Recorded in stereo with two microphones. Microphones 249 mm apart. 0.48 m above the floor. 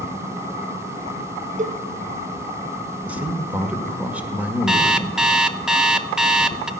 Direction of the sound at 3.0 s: 5° right (ahead or behind).